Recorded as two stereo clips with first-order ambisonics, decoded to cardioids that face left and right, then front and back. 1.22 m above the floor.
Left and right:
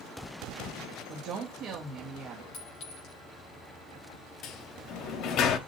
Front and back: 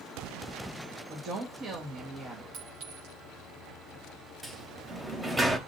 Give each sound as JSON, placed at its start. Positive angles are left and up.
{"t": 1.1, "sound": "a woman speaking", "azimuth_deg": -130, "distance_m": 1.6}
{"t": 2.5, "sound": "a clink", "azimuth_deg": 140, "distance_m": 5.5}
{"t": 4.4, "sound": "a sliding door", "azimuth_deg": 105, "distance_m": 0.8}